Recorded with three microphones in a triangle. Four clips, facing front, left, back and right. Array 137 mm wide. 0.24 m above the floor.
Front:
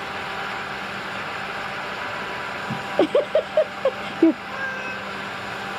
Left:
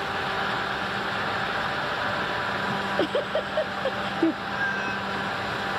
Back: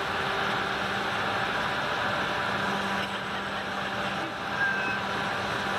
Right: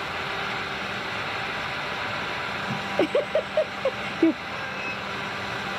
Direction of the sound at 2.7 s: 10° right.